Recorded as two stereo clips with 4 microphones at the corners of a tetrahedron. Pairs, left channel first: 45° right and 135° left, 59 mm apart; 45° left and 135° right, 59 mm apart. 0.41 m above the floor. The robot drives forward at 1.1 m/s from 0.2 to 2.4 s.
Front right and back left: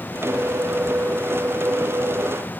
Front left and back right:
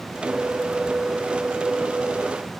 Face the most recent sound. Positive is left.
No sound to turn to.